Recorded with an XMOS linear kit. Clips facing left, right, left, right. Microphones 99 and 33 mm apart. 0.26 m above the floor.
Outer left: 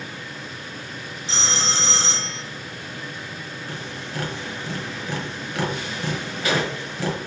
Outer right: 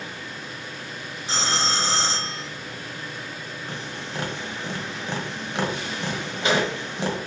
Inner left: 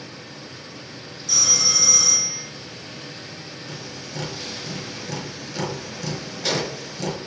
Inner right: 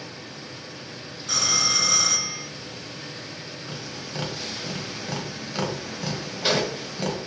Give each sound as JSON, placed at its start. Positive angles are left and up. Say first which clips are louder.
{"t": 1.3, "sound": "a phone ringing", "louder": "outer right 2 dB, inner left 1 dB", "side_deg": -40, "distance_m": 0.8}
{"t": 3.7, "sound": "tapping", "louder": "even, even", "side_deg": -25, "distance_m": 1.4}